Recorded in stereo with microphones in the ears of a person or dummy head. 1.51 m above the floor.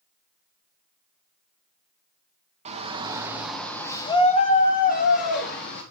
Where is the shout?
35° right (ahead or behind), 1.3 m; by 5.8 s 60° left (ahead or behind), 2 m.